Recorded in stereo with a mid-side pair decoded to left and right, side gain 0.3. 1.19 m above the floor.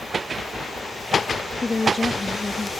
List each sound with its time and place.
1.6 s a woman speaking: 30° left